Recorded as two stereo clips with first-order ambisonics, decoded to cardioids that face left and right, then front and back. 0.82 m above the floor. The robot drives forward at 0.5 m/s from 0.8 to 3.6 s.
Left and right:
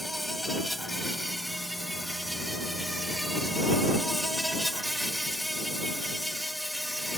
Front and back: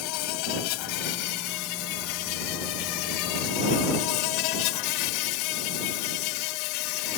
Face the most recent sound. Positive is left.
turn(degrees=0)